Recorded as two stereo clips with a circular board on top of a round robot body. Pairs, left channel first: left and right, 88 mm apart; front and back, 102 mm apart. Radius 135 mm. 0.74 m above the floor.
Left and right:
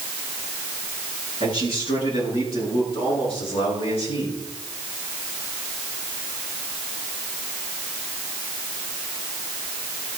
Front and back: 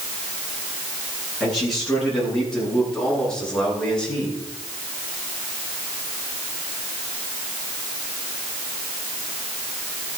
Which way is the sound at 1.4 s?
90° left.